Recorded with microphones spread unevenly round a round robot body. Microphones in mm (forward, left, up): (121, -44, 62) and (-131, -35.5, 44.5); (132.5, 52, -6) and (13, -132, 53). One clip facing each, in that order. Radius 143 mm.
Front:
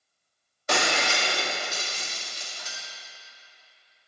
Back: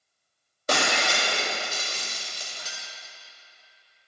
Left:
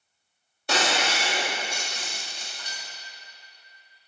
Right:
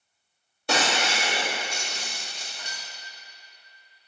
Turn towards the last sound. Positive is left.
turn(degrees=-130)